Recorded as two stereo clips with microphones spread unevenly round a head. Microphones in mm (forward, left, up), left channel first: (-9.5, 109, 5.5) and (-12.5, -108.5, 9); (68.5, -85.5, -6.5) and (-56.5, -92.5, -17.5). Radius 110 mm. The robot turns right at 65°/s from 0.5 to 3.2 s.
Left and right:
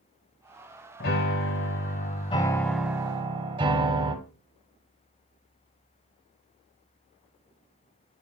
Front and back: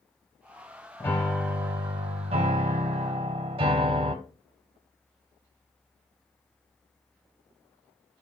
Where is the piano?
65° left, 1.0 m; by 4.2 s 150° right, 1.0 m.